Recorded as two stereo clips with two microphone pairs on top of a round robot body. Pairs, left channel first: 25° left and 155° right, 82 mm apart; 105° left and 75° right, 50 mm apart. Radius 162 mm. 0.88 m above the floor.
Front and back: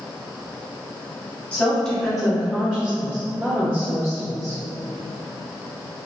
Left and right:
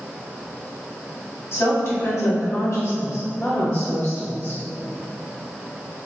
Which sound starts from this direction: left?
A woman speaking, at 1.5 s.